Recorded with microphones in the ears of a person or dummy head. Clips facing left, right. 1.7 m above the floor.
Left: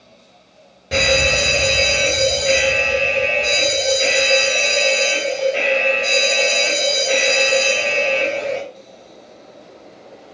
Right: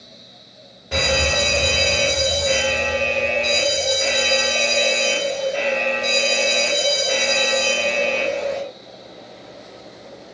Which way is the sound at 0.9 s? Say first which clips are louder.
Left 3 dB; 30° left (ahead or behind).